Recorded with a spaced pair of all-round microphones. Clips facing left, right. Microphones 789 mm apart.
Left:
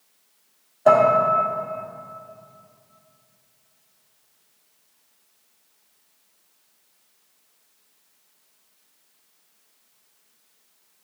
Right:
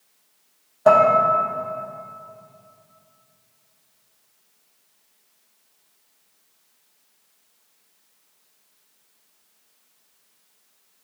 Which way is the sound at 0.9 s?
40° right (ahead or behind).